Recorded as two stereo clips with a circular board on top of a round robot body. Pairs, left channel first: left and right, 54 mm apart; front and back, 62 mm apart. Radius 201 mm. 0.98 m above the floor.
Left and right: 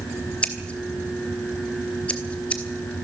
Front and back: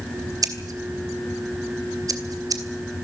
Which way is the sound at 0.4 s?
160° left.